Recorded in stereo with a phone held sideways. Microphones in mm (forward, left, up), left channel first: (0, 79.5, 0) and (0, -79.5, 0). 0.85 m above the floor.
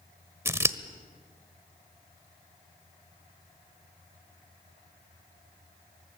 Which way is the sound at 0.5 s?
15° right (ahead or behind).